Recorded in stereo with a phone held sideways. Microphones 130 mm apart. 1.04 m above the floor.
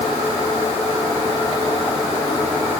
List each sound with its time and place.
Only background noise.